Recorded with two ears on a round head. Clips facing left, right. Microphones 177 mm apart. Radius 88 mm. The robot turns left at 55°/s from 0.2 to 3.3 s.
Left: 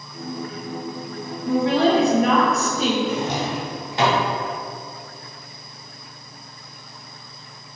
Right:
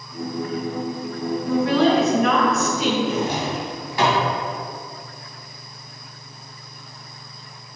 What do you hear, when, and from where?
1.4 s a woman speaking: 150° left, 0.9 m; by 3.0 s 65° left, 0.9 m
3.1 s a drawer: 30° left (ahead or behind), 1.2 m; by 4.2 s 20° left (ahead or behind), 1.2 m